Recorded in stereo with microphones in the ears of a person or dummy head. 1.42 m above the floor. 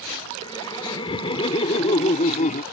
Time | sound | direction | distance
0.4 | laughter | 25° left (ahead or behind) | ?